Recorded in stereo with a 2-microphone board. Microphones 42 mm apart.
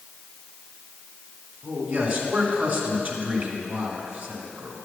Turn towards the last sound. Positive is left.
turn(degrees=-45)  # may be behind; listen again after turning